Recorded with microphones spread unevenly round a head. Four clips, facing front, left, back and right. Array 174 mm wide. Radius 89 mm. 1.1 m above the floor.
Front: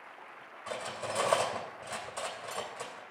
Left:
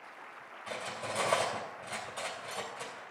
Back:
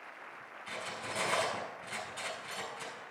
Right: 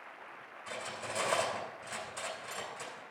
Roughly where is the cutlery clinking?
Ahead.